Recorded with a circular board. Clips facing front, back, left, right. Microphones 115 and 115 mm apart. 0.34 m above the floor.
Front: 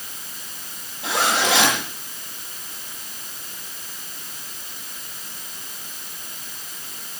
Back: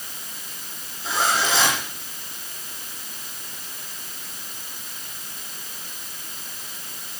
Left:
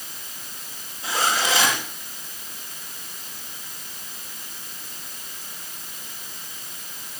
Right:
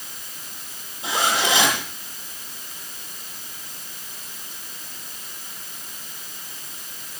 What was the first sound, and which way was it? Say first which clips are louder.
A zipper: front 2 dB, right 1 dB; 20° right.